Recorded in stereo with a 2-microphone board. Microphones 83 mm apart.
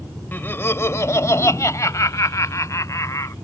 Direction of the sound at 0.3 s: 25° left (ahead or behind).